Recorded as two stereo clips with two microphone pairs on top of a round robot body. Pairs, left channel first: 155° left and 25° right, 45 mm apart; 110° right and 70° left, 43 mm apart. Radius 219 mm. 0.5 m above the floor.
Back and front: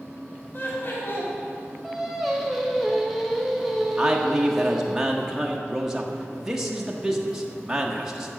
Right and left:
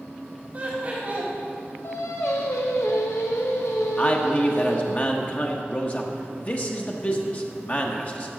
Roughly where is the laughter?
Behind left.